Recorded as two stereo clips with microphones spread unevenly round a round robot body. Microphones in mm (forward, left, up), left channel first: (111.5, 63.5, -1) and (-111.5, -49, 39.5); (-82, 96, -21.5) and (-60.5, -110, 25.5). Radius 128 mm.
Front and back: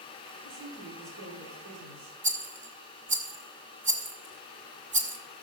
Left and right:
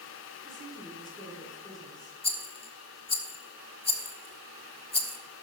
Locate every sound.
0.4 s a woman speaking: 165° left, 6 m
2.2 s a rattle: 145° left, 1.8 m